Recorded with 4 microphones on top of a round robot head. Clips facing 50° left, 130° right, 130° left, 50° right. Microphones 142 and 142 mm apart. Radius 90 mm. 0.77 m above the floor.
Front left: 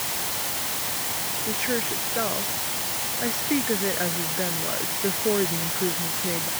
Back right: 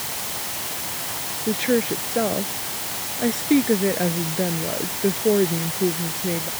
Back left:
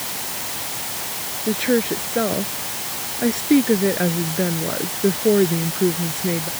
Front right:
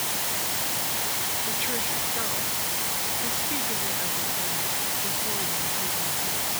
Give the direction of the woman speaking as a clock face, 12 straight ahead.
6 o'clock.